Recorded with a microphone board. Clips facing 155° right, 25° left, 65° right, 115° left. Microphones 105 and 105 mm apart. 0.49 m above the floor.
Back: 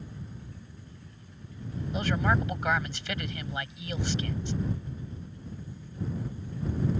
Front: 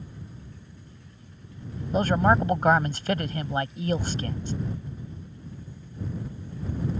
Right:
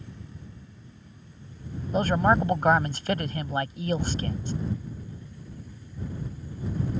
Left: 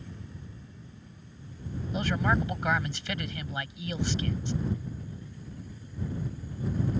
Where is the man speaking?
25° right.